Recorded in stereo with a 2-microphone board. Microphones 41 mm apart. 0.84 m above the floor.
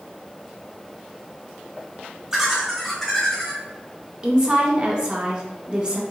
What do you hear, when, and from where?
2.3 s laughter: 15° right (ahead or behind), 1.0 m; by 3.6 s 20° left (ahead or behind), 0.9 m
4.2 s a woman speaking: 20° right (ahead or behind), 0.7 m